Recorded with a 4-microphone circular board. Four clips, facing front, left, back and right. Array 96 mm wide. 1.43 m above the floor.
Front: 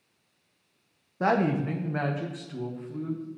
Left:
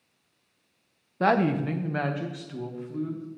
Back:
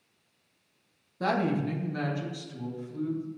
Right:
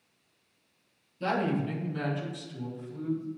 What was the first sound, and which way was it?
A woman speaking, 70° left.